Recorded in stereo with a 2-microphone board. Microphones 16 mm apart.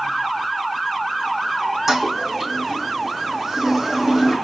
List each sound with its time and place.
1.9 s a toilet flushing: 35° right (ahead or behind), 3 m